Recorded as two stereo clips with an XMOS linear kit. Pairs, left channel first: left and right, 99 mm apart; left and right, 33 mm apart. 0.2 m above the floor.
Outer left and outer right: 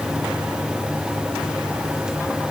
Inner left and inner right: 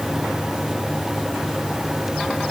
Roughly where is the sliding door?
I don't hear a sliding door.